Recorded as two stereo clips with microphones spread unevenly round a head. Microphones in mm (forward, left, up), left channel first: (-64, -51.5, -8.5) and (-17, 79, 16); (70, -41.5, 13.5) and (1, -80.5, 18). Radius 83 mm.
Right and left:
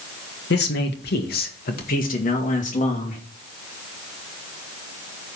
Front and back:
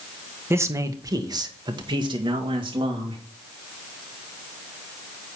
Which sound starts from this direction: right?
A man speaking, at 0.5 s.